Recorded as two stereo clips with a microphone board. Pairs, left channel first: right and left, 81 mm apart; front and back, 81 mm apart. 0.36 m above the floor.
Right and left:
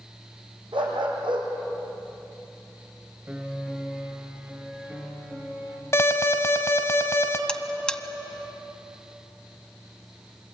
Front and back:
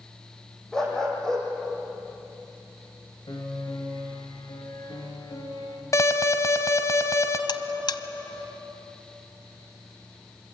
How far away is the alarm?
About 1.7 m.